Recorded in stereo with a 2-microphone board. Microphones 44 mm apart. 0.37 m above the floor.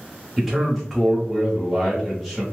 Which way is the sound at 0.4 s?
Centre (ahead or behind).